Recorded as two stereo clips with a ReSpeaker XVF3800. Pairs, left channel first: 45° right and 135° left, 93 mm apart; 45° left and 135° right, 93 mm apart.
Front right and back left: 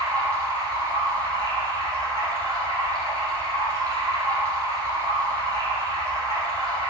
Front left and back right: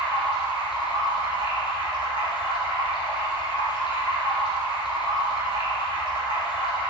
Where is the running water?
85° left, 4 m.